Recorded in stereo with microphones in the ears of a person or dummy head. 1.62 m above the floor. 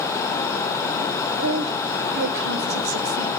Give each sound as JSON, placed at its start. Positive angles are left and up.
{"t": 1.4, "sound": "a woman speaking", "side_deg": -60, "distance_m": 5.0}